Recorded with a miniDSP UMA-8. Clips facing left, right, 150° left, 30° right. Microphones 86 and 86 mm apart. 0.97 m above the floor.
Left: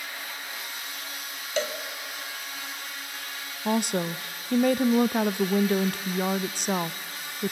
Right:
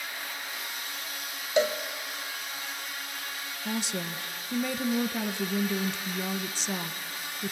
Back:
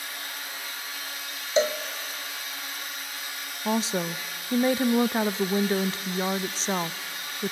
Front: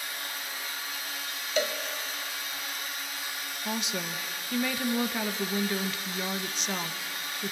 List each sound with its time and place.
1.6 s a cowbell: 155° right, 1.0 m
3.6 s a woman speaking: 100° left, 0.6 m